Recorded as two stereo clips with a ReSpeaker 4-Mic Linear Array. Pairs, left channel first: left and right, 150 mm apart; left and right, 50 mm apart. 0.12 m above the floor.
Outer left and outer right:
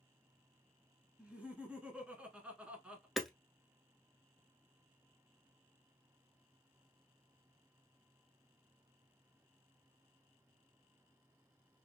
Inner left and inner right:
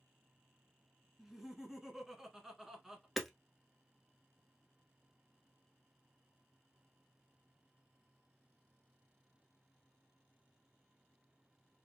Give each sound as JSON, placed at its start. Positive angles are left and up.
{"t": 1.2, "sound": "laughter", "side_deg": -10, "distance_m": 1.1}
{"t": 3.2, "sound": "hammering", "side_deg": 0, "distance_m": 0.8}